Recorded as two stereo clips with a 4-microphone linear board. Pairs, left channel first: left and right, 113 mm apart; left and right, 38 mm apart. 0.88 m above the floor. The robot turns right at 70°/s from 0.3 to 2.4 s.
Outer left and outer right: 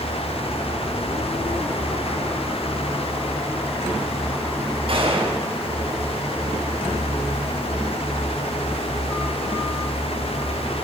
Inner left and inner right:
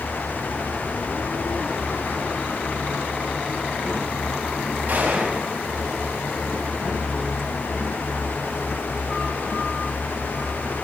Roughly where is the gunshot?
Right.